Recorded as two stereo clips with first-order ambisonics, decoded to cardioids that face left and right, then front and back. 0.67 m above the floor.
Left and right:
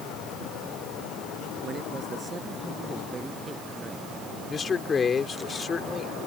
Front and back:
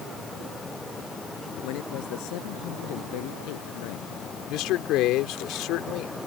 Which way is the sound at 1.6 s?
25° right.